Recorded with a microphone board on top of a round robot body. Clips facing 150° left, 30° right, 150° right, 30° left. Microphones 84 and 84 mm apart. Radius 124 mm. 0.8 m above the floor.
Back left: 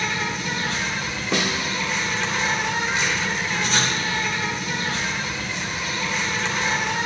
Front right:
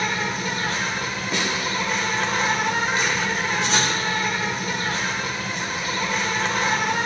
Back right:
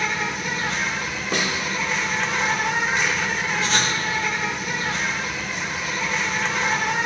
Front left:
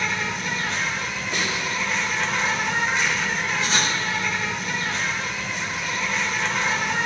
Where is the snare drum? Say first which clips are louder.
Back left 3 dB, back right 3 dB; 170° left, 0.7 m.